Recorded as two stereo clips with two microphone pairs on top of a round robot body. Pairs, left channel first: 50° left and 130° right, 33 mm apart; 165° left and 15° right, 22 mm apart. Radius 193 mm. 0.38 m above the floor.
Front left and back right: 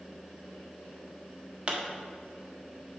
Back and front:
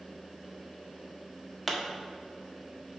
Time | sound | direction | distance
1.7 | a pop | 105° right | 1.9 m